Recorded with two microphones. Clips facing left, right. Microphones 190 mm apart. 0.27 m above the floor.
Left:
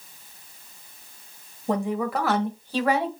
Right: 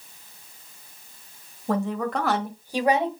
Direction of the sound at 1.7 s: 20° left (ahead or behind).